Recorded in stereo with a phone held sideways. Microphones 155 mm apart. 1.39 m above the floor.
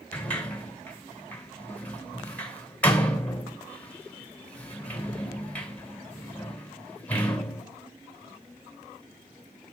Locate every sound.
0.1 s a sliding door: 10° left (ahead or behind), 2.5 m